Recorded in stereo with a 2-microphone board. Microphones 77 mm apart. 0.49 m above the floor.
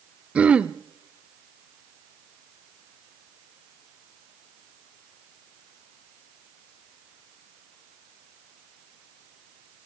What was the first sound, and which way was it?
Throat clearing, 15° right (ahead or behind).